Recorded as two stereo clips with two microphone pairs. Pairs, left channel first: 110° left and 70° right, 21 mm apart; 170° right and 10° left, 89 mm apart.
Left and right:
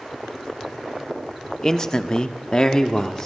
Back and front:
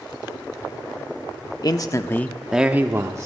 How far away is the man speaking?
About 1.1 m.